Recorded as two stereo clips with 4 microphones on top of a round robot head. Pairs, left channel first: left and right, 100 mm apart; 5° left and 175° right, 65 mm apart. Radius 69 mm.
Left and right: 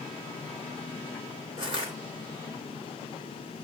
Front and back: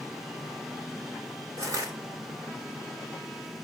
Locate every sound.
1.6 s crushing: 130° right, 2.5 m